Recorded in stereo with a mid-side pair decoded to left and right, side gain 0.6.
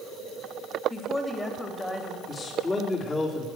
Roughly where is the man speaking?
Ahead left.